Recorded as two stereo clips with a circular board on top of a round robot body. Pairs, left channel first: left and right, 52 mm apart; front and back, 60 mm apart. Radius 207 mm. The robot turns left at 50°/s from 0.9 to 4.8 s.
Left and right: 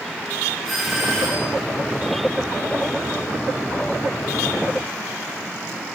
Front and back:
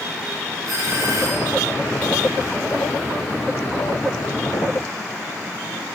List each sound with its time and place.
0.7 s a doorbell: straight behind, 6.5 m; by 1.6 s 145° left, 6.5 m